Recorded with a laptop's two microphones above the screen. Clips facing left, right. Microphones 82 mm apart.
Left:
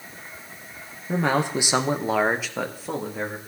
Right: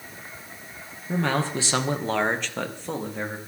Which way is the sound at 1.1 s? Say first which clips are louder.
Left 2 dB; 15° left (ahead or behind).